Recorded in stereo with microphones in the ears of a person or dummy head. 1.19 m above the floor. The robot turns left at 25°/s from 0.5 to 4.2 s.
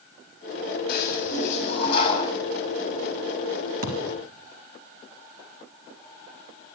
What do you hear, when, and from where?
0.9 s a toilet flushing: 60° left, 6 m; by 2.3 s 25° left, 6 m
3.8 s a thud: 50° right (ahead or behind), 3 m; by 4.1 s 40° right (ahead or behind), 3 m